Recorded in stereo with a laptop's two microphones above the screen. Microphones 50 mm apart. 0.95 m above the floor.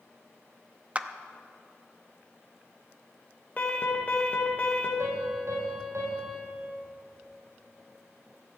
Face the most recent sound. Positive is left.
turn(degrees=-80)